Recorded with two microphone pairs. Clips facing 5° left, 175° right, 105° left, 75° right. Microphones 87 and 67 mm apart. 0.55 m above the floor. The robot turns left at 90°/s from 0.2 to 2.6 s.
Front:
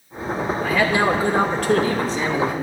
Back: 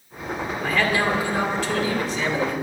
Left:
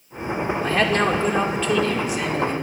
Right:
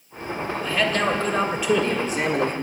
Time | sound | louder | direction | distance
0.6 | a man speaking | front 3 dB, left 2 dB | 95° left | 1.8 m